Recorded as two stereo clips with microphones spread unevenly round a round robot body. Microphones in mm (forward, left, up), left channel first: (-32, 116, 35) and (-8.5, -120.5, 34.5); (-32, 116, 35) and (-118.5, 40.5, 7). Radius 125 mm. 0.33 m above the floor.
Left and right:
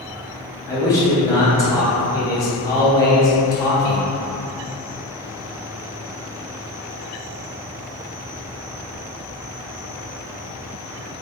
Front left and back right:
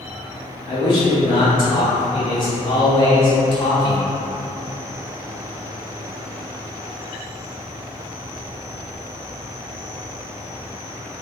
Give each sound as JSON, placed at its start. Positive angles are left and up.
{"t": 0.7, "sound": "a man speaking", "azimuth_deg": 35, "distance_m": 0.9}